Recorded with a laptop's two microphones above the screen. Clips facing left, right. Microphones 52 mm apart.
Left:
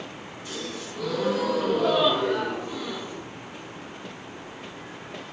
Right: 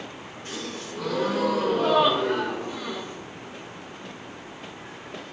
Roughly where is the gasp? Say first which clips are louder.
Even; right.